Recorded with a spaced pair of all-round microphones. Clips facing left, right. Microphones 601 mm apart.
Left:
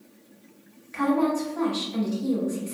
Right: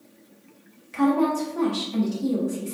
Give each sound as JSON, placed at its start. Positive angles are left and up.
{"t": 0.9, "sound": "a woman speaking", "side_deg": -55, "distance_m": 0.9}